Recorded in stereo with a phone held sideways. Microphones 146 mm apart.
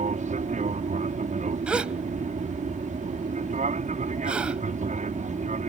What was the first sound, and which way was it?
An aircraft, 55° right (ahead or behind).